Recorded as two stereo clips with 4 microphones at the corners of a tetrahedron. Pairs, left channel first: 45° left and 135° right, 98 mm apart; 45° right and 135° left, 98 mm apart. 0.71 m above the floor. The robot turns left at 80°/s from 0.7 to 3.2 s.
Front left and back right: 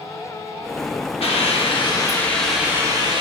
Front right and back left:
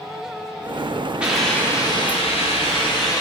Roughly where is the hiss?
Ahead left.